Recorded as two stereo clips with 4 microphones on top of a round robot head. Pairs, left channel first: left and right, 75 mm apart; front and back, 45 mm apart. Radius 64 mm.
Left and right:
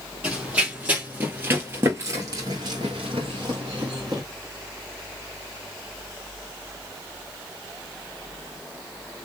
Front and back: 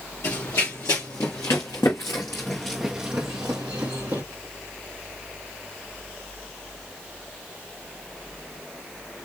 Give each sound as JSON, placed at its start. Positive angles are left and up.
{"t": 0.2, "sound": "running footsteps", "azimuth_deg": -15, "distance_m": 2.5}